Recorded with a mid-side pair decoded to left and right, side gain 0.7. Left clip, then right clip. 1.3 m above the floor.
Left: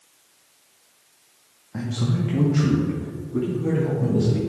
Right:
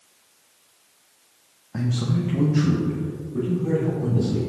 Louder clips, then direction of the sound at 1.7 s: Right 1 dB; 15° right.